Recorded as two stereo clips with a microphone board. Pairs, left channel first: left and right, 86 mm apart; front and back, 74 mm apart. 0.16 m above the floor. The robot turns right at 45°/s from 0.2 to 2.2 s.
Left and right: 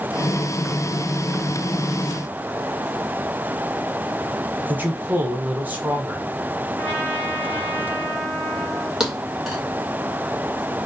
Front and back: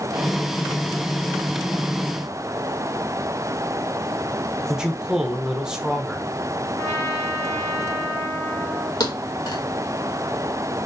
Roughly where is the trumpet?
Ahead.